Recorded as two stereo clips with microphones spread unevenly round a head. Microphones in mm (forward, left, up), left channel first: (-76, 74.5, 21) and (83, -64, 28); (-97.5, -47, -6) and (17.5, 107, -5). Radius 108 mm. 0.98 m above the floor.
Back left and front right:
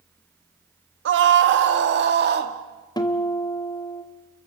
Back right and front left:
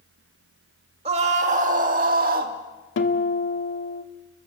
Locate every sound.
1.1 s a scream: 10° right, 1.8 m; by 2.5 s straight ahead, 2.5 m
3.0 s a guitar: 150° right, 1.9 m